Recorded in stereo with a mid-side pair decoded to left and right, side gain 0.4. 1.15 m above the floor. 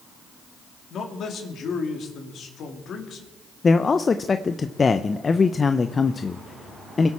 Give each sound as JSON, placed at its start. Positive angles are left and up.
{"t": 0.9, "sound": "a man speaking", "azimuth_deg": 70, "distance_m": 2.5}
{"t": 3.6, "sound": "a man speaking", "azimuth_deg": 35, "distance_m": 0.6}